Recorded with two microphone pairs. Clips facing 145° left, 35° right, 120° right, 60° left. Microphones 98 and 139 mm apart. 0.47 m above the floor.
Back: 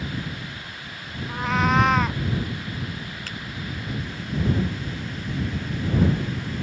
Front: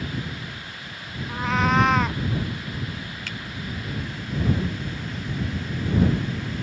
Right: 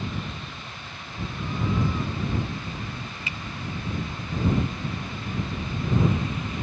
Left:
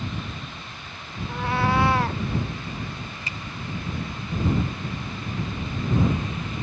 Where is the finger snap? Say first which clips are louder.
Even, even; 105° left.